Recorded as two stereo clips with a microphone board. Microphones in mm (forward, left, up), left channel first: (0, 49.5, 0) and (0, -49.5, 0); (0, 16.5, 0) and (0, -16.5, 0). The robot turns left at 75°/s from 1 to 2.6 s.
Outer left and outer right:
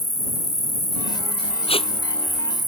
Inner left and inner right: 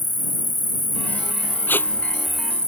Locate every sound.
0.0 s an insect: 100° left; by 2.7 s 20° right
1.7 s tape being pulled: 85° left; by 1.9 s 65° left (ahead or behind)